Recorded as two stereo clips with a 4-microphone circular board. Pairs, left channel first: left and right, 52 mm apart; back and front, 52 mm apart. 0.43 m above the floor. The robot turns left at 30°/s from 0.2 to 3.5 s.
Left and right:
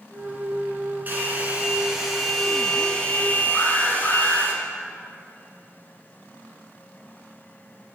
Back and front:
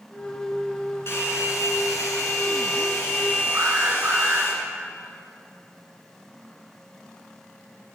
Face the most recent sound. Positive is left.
turn(degrees=20)